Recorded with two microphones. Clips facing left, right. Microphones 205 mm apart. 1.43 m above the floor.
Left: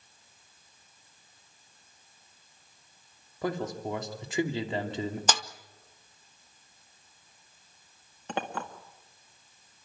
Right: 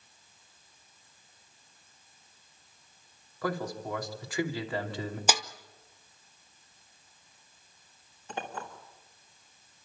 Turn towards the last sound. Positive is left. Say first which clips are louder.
# left 4 dB
turn(degrees=75)  # may be behind; listen again after turning